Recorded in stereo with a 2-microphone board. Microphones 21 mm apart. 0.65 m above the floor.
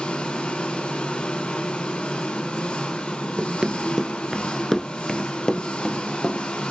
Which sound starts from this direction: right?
Running footsteps, at 3.4 s.